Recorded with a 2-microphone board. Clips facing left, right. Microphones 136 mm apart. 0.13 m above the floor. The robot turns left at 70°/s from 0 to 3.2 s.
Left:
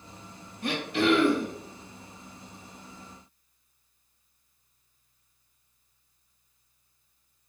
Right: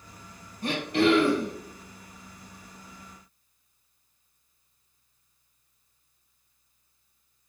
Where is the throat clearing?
35° right, 2 m; by 1.5 s 100° right, 2 m.